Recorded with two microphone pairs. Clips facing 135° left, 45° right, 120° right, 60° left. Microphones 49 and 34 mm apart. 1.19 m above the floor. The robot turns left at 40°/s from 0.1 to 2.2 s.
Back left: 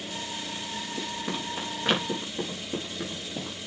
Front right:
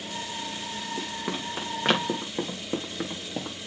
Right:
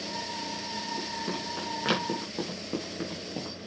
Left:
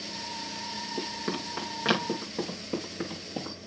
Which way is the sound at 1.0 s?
10° left.